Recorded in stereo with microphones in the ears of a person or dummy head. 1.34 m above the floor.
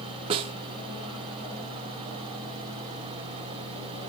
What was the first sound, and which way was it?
A snare drum, 25° right (ahead or behind).